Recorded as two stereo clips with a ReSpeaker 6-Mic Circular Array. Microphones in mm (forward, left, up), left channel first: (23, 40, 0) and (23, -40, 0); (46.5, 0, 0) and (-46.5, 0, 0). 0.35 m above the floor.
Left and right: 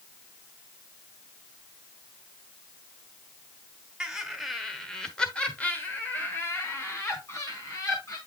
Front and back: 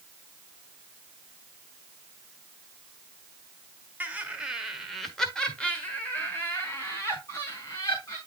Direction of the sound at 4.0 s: 150° right.